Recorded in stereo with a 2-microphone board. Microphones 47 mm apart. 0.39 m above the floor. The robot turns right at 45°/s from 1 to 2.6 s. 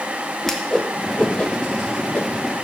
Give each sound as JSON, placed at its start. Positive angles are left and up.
{"t": 0.4, "sound": "a whoosh", "side_deg": 10, "distance_m": 0.8}